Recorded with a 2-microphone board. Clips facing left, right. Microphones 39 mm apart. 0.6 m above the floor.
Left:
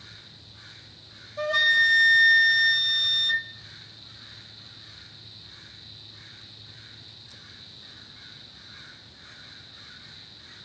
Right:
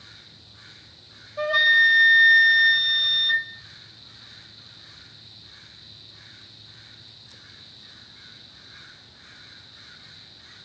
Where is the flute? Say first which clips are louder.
Right 3 dB; 15° right (ahead or behind), 1.8 m.